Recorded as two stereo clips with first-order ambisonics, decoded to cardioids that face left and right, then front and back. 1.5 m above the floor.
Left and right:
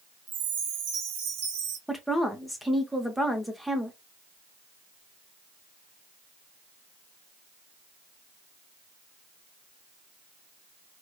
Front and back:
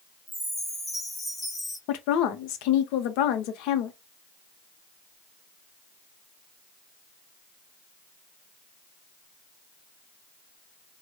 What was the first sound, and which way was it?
A chime, 85° right.